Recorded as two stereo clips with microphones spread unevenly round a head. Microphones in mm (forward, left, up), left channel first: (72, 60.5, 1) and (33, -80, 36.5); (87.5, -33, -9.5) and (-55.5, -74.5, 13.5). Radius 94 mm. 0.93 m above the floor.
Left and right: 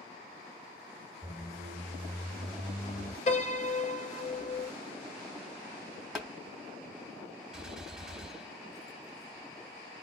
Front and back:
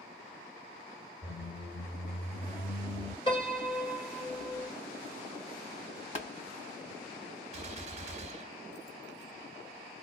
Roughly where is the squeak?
Ahead right.